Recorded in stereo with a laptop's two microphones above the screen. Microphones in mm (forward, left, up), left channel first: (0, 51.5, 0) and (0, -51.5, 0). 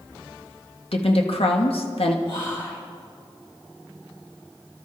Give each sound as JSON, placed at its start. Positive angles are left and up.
{"t": 0.9, "sound": "a woman speaking", "side_deg": 70, "distance_m": 1.7}
{"t": 2.2, "sound": "whispering", "side_deg": 55, "distance_m": 4.0}